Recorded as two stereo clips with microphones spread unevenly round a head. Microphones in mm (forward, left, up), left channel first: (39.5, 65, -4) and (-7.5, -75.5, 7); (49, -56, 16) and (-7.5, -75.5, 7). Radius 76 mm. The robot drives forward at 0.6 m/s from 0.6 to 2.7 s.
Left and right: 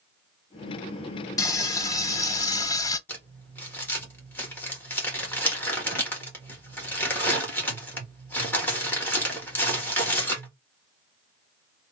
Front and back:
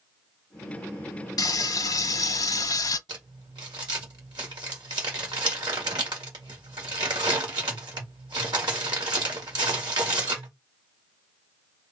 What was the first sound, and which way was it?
Frying, 5° left.